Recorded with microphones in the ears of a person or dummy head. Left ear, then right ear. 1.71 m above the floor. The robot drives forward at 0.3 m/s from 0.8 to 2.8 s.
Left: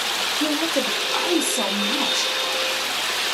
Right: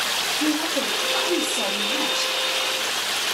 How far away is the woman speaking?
About 1.3 m.